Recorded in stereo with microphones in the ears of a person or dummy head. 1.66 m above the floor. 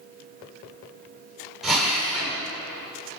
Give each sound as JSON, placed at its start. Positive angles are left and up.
{"t": 1.6, "sound": "a drill", "side_deg": 0, "distance_m": 7.0}